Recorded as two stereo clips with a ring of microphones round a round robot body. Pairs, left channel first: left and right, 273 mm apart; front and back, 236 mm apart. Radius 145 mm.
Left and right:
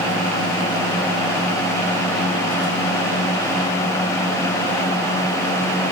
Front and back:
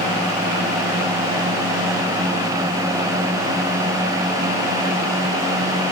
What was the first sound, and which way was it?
Only background noise.